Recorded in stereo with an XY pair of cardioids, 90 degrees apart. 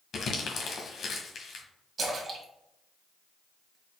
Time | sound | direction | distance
0.1 | crumpling | 60° left | 1.3 m
2.0 | a splash | 50° right | 1.5 m